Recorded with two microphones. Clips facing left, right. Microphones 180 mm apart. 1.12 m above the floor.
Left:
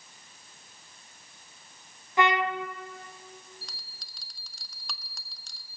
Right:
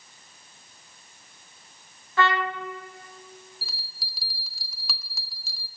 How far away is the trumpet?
About 0.5 m.